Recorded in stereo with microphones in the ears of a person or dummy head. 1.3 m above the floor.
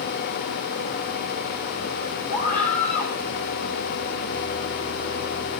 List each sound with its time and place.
2.3 s a scream: 40° left (ahead or behind), 9 m